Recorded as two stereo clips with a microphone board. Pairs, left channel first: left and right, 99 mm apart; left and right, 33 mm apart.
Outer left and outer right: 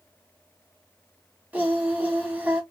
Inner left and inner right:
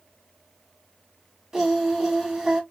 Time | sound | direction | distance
1.5 | singing | 15° right (ahead or behind) | 1.4 m